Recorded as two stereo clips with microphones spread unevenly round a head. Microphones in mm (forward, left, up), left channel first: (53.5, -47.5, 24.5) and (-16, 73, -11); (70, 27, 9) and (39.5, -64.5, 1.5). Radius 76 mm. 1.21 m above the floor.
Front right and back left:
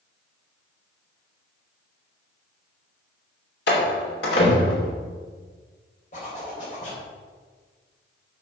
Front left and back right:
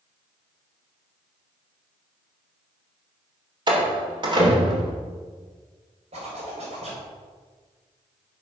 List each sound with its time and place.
3.7 s a door slam: 70° right, 3 m
6.1 s a zipper: 105° right, 4 m